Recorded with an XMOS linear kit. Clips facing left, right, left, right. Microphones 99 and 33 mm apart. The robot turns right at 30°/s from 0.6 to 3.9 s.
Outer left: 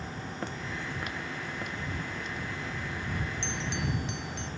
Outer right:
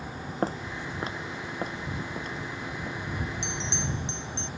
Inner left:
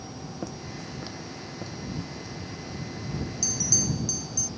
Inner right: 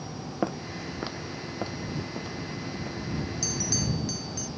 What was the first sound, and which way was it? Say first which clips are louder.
Footsteps: outer right 8 dB, inner right 8 dB; 40° right (ahead or behind).